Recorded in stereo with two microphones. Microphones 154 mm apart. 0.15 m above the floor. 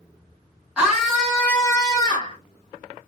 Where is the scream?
5° right (ahead or behind), 2.0 m; by 2.4 s 35° left (ahead or behind), 1.8 m.